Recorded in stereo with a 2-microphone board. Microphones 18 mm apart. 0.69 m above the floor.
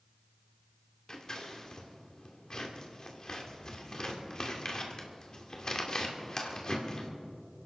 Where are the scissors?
40° left (ahead or behind), 2 m.